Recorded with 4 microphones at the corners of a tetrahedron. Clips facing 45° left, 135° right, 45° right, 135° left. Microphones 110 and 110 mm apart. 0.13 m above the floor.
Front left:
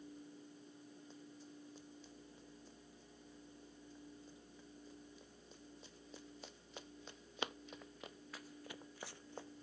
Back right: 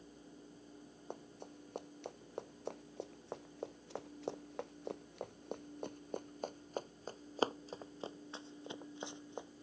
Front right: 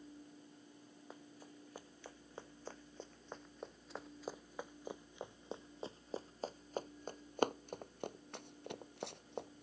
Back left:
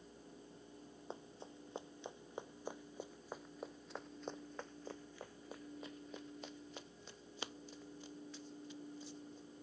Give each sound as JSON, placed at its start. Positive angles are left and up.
{"t": 1.1, "sound": "running footsteps", "azimuth_deg": -160}